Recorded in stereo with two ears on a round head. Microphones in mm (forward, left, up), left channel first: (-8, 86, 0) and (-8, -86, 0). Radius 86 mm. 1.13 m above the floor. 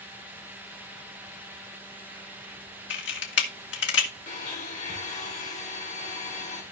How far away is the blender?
About 3.5 m.